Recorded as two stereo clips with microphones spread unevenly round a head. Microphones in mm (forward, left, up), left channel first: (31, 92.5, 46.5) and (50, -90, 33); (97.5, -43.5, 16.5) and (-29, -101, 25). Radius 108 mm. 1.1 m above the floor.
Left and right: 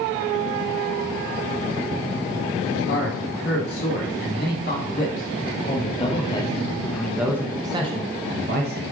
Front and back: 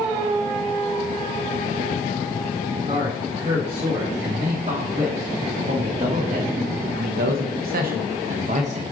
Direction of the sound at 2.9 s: 135° left.